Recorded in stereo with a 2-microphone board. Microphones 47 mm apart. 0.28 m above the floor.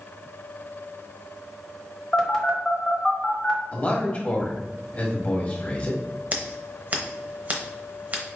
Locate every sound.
2.1 s a phone buzzing: 15° left (ahead or behind), 1.1 m
3.7 s a man speaking: 30° left (ahead or behind), 1.3 m
6.3 s scissors: 35° right (ahead or behind), 0.8 m